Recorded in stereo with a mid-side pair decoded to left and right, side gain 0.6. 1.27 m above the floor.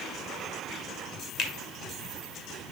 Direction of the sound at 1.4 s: 55° left.